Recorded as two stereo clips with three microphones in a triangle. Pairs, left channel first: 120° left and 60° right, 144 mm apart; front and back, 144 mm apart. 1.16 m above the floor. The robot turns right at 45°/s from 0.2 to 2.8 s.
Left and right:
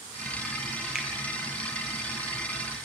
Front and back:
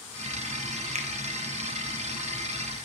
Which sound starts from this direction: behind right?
A finger snap, at 0.9 s.